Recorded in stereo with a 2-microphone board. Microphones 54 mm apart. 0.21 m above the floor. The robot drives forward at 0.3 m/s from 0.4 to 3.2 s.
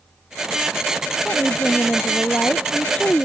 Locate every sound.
1.2 s a woman speaking: 25° left (ahead or behind); by 3.3 s 20° left (ahead or behind)